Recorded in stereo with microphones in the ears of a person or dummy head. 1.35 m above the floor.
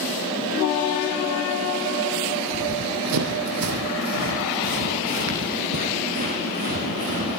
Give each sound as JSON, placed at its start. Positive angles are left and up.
{"t": 2.5, "sound": "running footsteps", "side_deg": -70, "distance_m": 4.0}